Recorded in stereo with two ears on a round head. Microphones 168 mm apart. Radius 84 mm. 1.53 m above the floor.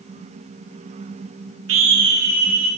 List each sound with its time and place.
1.7 s a scream: 75° right (ahead or behind), 1.1 m; by 2.7 s 35° right (ahead or behind), 1.7 m